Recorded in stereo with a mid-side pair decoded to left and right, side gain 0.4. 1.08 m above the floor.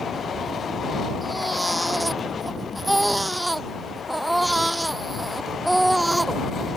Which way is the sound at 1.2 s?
5° right.